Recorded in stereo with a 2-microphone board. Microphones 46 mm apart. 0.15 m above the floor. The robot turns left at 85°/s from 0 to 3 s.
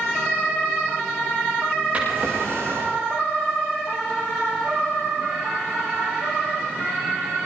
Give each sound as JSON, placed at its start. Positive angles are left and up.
{"t": 1.9, "sound": "a drawer", "azimuth_deg": -35, "distance_m": 8.5}